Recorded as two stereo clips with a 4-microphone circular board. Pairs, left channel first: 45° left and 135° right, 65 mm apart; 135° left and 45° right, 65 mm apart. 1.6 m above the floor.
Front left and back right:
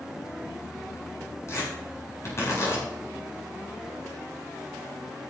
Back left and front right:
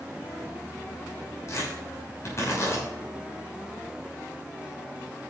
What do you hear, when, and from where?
1.5 s tearing paper: 95° left, 7 m